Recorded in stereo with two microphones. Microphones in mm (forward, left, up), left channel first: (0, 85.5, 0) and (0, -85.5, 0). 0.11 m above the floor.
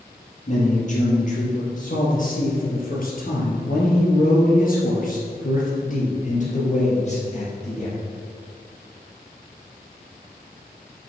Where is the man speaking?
45° left (ahead or behind), 3 m; by 8.0 s 35° left (ahead or behind), 3 m.